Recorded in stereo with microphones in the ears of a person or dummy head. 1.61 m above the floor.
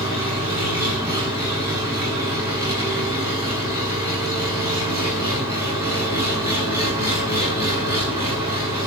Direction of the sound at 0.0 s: 15° right (ahead or behind).